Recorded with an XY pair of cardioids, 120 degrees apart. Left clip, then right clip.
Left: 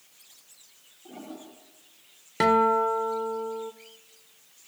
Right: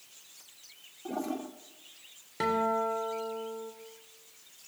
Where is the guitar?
50° left, 2 m.